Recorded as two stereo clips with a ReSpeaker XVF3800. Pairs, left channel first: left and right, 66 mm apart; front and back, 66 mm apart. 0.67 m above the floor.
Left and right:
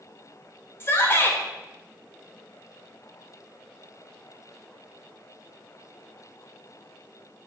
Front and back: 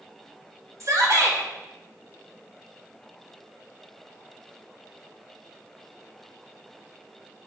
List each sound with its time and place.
0.8 s a shout: 140° left, 2.0 m